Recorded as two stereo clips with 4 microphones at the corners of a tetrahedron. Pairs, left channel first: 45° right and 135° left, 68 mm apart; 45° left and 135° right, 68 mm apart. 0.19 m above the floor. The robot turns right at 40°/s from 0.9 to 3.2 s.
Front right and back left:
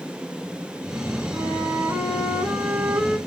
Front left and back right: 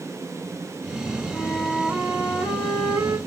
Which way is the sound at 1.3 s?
145° left.